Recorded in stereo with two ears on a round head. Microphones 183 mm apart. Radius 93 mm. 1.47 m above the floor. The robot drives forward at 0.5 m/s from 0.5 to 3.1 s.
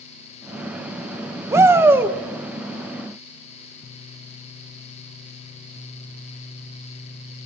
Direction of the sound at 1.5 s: 15° right (ahead or behind).